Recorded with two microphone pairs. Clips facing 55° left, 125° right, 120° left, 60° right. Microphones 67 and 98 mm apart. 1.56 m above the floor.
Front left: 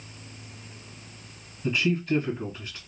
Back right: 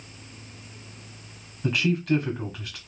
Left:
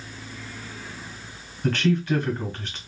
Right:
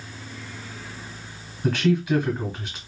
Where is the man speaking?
140° right, 1.3 m.